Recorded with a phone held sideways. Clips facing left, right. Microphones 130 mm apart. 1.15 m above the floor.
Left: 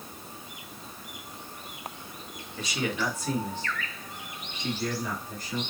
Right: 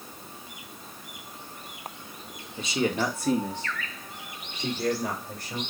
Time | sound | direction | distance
2.6 | a man speaking | 20° right (ahead or behind) | 1.1 m